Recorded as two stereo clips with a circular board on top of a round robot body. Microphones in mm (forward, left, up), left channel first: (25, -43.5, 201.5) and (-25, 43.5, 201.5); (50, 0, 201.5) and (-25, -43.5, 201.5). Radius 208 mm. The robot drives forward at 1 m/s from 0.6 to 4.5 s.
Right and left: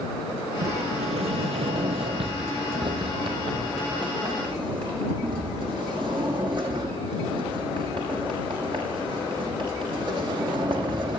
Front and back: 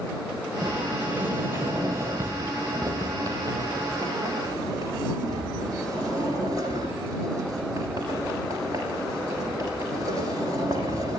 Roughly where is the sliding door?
Behind left.